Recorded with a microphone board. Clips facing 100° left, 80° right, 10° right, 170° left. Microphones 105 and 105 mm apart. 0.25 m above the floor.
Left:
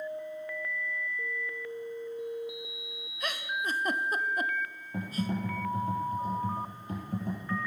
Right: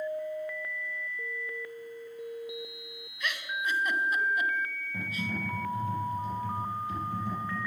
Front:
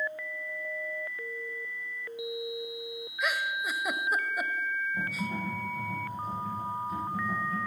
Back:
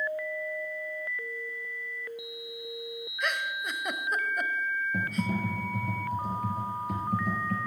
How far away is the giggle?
About 0.6 m.